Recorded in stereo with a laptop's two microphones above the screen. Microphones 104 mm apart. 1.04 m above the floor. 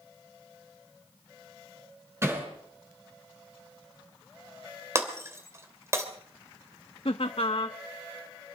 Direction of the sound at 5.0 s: 25° right (ahead or behind).